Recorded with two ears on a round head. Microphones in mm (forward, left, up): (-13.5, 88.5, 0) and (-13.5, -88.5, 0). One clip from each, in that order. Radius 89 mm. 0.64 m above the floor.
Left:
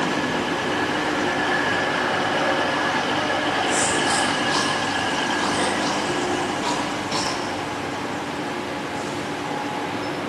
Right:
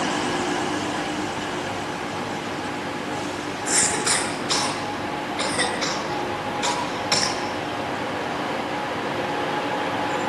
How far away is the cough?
About 8.5 m.